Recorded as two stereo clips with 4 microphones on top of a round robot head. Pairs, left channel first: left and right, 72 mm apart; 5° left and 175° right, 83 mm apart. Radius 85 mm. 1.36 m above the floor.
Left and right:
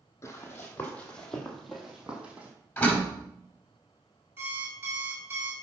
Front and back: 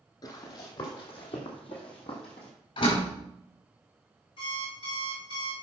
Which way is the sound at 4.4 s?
30° right.